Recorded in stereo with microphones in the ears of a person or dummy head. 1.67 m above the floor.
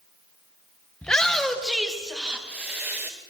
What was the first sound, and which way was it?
A shout, 5° left (ahead or behind).